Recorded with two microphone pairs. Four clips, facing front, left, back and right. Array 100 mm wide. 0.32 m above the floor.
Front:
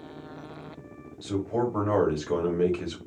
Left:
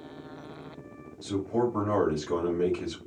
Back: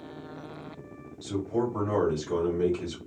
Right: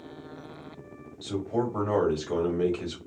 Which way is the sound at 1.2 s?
20° right.